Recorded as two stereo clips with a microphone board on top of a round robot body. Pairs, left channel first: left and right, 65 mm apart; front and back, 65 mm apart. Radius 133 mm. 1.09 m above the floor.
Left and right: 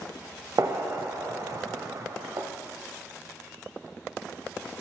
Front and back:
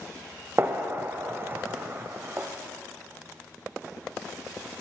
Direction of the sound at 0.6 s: 125° right.